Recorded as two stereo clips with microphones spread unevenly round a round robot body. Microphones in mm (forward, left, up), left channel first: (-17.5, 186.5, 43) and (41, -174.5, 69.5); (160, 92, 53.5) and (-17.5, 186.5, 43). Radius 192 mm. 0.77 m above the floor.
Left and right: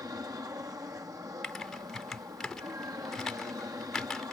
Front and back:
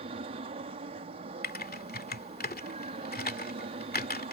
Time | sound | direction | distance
0.0 | an aircraft | 160° right | ?
1.4 | typing on a keyboard | 10° left | ?